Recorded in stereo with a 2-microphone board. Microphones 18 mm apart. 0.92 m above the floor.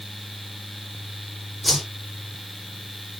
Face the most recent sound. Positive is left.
turn(degrees=0)  # may be behind; listen again after turning